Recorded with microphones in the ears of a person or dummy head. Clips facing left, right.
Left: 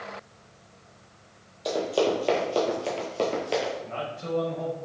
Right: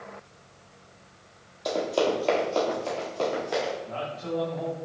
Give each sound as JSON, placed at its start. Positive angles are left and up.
{"t": 1.6, "sound": "running footsteps", "side_deg": 5, "distance_m": 1.8}
{"t": 3.8, "sound": "a man speaking", "side_deg": 30, "distance_m": 1.3}